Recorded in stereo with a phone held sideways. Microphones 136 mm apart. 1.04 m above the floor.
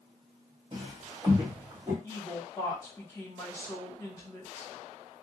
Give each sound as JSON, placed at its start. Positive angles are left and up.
{"t": 0.7, "sound": "footsteps", "side_deg": -40, "distance_m": 1.5}
{"t": 2.0, "sound": "a woman speaking", "side_deg": 20, "distance_m": 1.4}